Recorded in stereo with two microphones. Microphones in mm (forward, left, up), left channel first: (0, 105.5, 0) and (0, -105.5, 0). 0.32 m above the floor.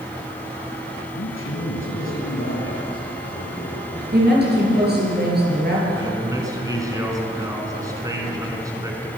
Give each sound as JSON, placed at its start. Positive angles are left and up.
{"t": 1.1, "sound": "a man speaking", "side_deg": 70, "distance_m": 5.0}
{"t": 4.1, "sound": "a woman speaking", "side_deg": -50, "distance_m": 6.0}
{"t": 6.0, "sound": "a man speaking", "side_deg": -15, "distance_m": 3.0}